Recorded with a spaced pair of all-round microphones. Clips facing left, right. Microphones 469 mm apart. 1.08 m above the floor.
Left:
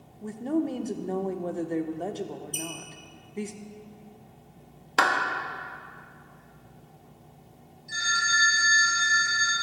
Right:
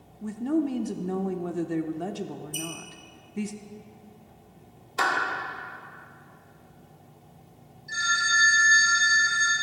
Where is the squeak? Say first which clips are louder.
Right 1 dB; 75° left (ahead or behind), 2.0 m.